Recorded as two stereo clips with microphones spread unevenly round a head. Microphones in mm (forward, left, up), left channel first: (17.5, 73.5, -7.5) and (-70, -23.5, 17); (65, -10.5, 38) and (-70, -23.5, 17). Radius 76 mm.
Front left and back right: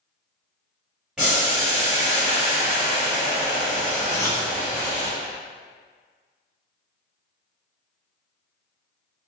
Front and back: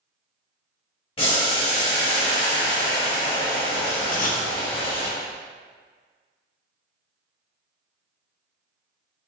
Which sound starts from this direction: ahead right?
Boiling, at 1.2 s.